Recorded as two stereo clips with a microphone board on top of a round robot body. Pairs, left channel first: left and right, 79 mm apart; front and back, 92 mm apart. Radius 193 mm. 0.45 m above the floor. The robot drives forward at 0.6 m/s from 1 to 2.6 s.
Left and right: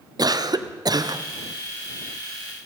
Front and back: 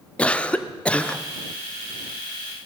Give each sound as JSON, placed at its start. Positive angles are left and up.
{"t": 0.2, "sound": "a cough", "azimuth_deg": -75, "distance_m": 1.7}